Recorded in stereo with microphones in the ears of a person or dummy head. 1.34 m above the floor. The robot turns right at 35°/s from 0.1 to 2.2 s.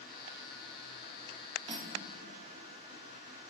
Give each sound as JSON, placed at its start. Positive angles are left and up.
{"t": 1.7, "sound": "cutlery clinking", "side_deg": -30, "distance_m": 1.6}